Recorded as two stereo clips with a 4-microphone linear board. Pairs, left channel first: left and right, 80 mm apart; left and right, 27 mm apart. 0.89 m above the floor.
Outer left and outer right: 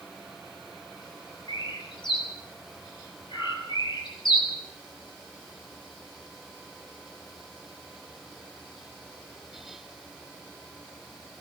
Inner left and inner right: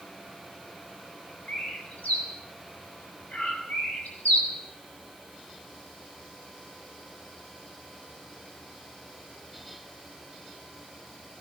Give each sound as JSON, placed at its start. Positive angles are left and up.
{"t": 1.5, "sound": "a bird", "side_deg": 65, "distance_m": 8.0}